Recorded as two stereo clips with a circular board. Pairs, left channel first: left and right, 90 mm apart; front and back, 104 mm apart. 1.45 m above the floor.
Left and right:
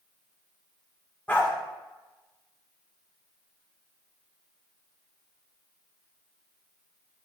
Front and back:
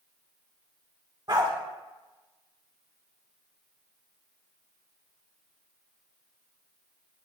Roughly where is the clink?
I don't hear a clink.